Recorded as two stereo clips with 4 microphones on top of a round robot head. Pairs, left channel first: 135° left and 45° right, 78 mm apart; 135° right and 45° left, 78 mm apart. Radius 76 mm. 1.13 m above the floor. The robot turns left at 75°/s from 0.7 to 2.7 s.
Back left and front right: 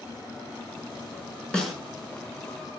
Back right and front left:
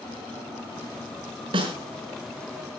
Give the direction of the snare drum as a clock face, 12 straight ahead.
10 o'clock.